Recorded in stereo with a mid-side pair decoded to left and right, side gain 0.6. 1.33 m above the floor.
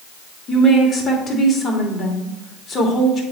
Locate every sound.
0.5 s a woman speaking: 45° left, 2.5 m